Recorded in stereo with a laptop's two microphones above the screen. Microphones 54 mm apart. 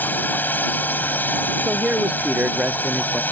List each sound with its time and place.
0.0 s a drone: 35° left (ahead or behind)
1.6 s a man speaking: 25° right (ahead or behind)